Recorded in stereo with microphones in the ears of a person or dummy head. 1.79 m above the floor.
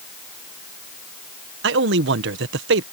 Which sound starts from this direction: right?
A man speaking, at 1.6 s.